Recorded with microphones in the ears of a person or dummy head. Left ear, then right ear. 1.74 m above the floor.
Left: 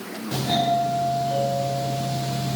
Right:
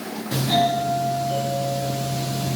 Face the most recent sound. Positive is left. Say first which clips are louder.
# right 1 dB
turn(degrees=10)  # may be behind; listen again after turning